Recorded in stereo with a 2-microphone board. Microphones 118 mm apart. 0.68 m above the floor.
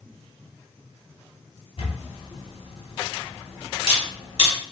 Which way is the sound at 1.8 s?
60° left (ahead or behind).